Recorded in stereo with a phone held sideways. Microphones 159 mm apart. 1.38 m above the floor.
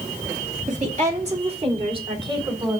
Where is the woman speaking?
50° right (ahead or behind), 2.5 m; by 2.8 s 30° right (ahead or behind), 3.5 m.